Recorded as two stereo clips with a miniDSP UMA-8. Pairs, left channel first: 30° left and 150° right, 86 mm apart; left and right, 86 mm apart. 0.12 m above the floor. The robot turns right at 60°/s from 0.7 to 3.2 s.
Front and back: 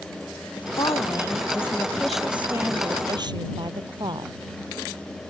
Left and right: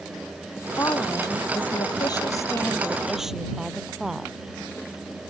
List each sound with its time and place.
0.6 s a woman speaking: 35° left; by 4.4 s 175° right